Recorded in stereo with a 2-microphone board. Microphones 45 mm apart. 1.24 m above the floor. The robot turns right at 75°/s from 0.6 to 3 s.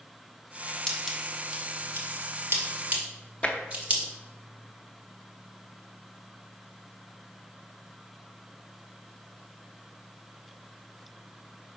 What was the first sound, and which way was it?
Scissors, 10° left (ahead or behind).